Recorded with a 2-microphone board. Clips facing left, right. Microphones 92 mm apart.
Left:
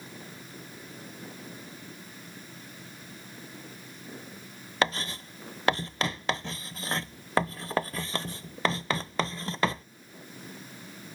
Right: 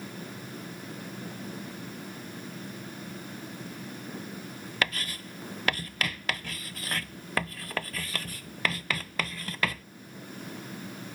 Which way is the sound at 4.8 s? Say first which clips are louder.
Left 4 dB; 25° left (ahead or behind).